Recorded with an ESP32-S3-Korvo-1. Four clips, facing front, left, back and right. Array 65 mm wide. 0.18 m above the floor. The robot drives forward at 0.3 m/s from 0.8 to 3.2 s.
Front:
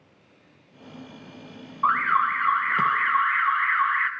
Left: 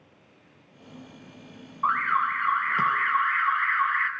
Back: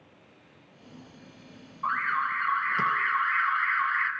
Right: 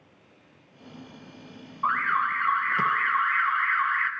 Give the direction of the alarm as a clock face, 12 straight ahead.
12 o'clock.